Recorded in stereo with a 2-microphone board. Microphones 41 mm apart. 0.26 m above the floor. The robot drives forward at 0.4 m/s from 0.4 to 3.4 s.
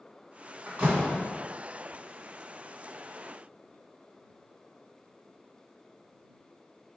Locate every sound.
0.7 s a door slam: 30° right (ahead or behind), 1.9 m; by 1.3 s 35° right (ahead or behind), 1.7 m